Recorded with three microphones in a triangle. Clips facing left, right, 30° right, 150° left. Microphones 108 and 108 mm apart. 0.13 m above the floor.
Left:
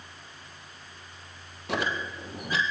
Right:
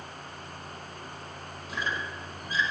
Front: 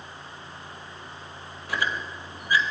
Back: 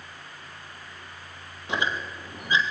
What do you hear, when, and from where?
1.7 s a squeak: 80° left, 3 m